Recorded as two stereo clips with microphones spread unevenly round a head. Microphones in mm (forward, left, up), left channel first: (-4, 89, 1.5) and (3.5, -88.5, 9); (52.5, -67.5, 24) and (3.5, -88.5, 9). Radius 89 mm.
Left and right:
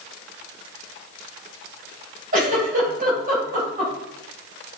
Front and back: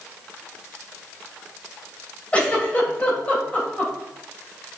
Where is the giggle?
40° right, 3 m.